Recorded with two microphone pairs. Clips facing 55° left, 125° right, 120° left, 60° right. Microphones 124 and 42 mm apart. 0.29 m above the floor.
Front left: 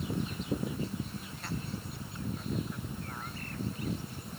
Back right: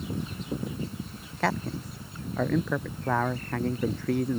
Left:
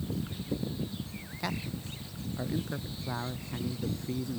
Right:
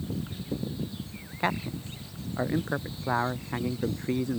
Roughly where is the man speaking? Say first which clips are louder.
Back right 12 dB, right 7 dB; behind right.